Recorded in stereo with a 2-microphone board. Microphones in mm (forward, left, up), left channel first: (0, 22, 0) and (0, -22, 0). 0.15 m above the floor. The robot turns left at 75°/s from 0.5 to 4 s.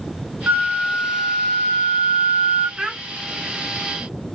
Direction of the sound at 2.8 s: 25° right (ahead or behind).